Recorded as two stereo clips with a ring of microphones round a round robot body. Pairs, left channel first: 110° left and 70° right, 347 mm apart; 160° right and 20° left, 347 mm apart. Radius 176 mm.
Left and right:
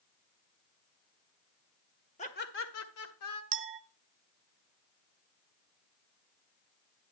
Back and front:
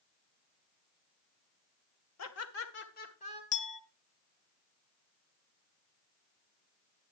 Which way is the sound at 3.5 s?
90° right.